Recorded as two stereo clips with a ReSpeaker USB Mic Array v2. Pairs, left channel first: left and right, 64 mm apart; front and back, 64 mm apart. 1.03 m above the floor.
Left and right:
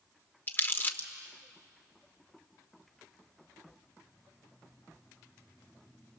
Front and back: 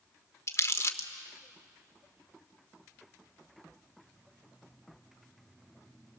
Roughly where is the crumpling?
Ahead left.